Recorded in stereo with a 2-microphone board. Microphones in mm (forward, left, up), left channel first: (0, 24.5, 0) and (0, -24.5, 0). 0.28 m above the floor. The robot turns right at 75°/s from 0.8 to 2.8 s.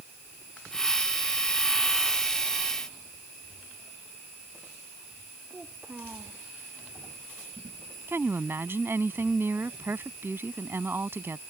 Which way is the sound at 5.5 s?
35° right (ahead or behind).